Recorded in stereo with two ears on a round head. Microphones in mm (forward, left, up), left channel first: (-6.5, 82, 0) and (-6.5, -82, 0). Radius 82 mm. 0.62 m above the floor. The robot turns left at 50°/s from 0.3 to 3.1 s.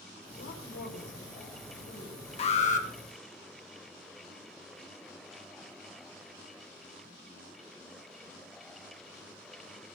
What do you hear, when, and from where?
0.3 s a woman speaking: 115° left, 3 m; by 2.3 s 20° left, 3 m
2.4 s an alarm: 35° left (ahead or behind), 1.2 m; by 2.9 s 45° left (ahead or behind), 1.2 m